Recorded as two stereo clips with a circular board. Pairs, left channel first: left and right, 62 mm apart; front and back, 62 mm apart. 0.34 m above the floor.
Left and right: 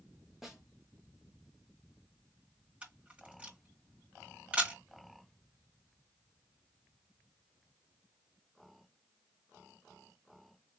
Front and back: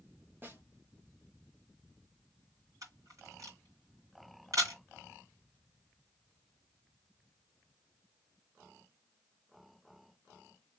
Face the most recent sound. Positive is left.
turn(degrees=-160)